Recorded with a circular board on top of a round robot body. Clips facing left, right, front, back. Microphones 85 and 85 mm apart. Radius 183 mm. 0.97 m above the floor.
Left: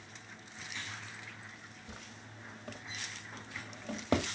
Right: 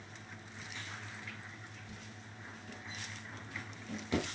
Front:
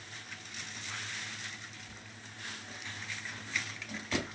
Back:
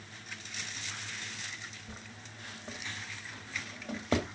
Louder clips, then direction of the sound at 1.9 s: Left 1 dB, back 2 dB; 130° left.